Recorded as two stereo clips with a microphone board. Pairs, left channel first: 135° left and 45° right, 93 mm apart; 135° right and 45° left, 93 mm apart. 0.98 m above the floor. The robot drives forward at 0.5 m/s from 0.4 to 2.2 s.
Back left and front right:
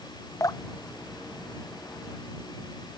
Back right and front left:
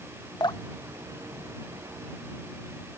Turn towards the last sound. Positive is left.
turn(degrees=180)